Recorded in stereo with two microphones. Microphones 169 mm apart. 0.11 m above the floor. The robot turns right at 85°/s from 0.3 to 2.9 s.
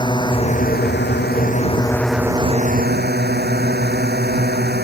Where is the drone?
25° left; by 4.9 s 110° right.